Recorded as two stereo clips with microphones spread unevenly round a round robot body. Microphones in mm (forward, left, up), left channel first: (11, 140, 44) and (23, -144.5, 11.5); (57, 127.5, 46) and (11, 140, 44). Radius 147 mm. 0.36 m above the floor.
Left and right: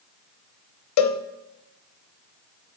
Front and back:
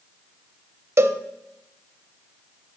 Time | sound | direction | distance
1.0 | a cowbell | 135° left | 0.6 m